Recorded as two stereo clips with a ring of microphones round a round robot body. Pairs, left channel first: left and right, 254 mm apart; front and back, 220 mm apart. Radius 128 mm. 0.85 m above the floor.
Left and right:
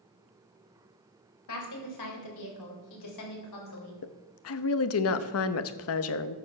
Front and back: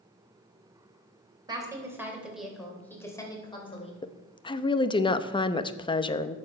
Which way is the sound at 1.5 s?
110° left.